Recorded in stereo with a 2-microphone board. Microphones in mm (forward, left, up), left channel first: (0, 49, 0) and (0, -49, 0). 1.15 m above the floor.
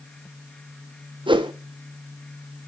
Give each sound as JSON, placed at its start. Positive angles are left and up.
{"t": 1.3, "sound": "a whoosh", "side_deg": -55, "distance_m": 0.7}